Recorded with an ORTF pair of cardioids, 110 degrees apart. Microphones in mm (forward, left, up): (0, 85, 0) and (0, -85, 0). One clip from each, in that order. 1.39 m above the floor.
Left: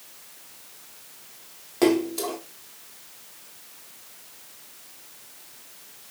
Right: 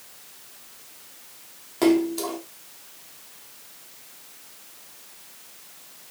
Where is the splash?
5° left, 0.8 m.